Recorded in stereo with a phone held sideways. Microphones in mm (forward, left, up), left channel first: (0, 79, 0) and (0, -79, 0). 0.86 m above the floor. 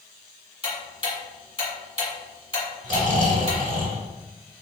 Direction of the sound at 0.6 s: 35° left (ahead or behind).